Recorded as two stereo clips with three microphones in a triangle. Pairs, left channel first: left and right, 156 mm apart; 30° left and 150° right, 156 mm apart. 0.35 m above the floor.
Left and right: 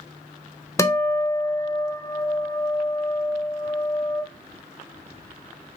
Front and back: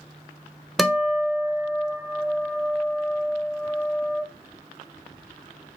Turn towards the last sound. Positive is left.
turn(degrees=120)